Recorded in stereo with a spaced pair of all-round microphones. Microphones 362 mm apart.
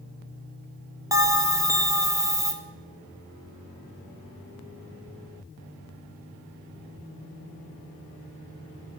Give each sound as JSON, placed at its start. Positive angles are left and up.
{"t": 1.1, "sound": "a bell", "side_deg": -10, "distance_m": 0.7}